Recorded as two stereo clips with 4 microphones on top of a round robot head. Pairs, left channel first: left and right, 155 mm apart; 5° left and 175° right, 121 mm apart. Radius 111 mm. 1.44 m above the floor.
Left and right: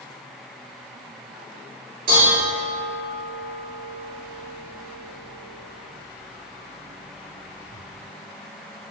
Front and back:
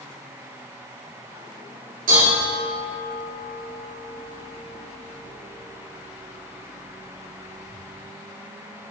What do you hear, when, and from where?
2.1 s dishes clattering: 140° right, 2.5 m